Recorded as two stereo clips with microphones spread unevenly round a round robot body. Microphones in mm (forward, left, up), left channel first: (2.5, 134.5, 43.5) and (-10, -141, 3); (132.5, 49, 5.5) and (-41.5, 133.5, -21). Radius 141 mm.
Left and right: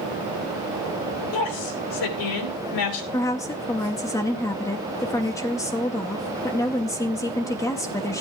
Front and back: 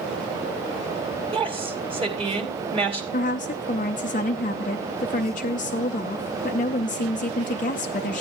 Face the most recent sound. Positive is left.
turn(degrees=5)